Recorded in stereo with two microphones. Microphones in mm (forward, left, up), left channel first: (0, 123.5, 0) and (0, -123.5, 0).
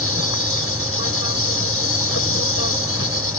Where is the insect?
65° left (ahead or behind).